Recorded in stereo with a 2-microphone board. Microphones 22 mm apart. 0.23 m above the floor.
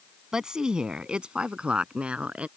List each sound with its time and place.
0.3 s a woman speaking: 30° right (ahead or behind); by 2.5 s 65° right (ahead or behind)